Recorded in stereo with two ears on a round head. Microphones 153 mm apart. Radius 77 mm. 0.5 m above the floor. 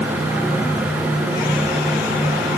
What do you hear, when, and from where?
Only background noise.